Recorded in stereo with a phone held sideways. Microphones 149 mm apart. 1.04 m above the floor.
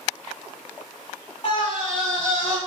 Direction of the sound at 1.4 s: 40° left (ahead or behind).